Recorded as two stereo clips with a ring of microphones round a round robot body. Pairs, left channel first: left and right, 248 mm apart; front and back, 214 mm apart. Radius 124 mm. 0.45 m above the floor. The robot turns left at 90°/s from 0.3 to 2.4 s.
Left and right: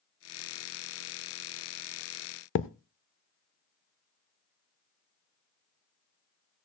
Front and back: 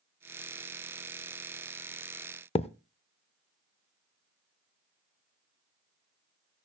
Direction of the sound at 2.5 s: 60° left.